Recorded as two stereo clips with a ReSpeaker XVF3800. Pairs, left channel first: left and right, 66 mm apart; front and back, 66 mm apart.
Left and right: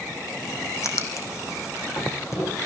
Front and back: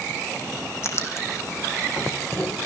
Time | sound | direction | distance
0.8 | writing | 45° left | 3 m